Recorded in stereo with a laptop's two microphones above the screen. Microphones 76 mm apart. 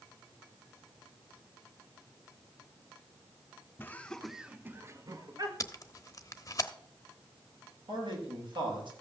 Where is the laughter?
25° left (ahead or behind), 1.0 m; by 5.5 s 55° right (ahead or behind), 1.3 m.